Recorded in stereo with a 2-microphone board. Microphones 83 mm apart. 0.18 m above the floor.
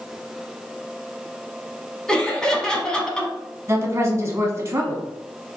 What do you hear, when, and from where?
2.1 s laughter: 10° left (ahead or behind), 1.2 m
3.7 s a woman speaking: 35° right (ahead or behind), 1.2 m